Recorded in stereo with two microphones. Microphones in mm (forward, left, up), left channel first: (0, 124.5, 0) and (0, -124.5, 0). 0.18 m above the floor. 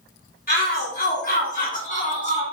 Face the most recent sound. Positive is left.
turn(degrees=25)  # may be behind; listen again after turning